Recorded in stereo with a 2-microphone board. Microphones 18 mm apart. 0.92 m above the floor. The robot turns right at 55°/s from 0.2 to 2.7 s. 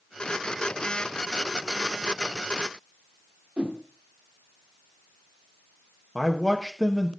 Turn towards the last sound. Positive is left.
turn(degrees=-5)  # may be behind; listen again after turning